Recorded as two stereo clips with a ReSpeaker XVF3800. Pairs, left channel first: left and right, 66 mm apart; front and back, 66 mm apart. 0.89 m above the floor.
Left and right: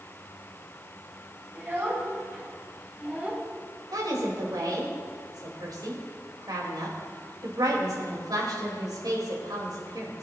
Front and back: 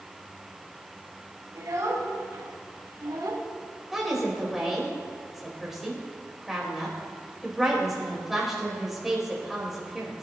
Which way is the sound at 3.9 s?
95° right.